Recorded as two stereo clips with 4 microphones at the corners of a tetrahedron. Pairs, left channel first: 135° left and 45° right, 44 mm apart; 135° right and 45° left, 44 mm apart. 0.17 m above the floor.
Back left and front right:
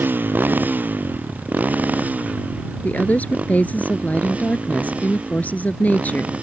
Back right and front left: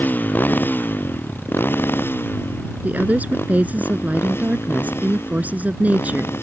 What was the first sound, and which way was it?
A motorcycle, 90° right.